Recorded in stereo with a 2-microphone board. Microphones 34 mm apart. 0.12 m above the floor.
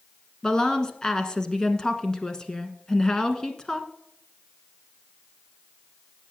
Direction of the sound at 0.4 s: 20° left (ahead or behind).